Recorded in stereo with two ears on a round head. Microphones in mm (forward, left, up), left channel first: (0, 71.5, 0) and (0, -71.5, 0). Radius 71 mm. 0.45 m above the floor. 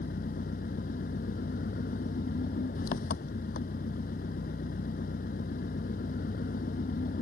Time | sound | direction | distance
0.0 | an engine running | 60° left (ahead or behind) | ?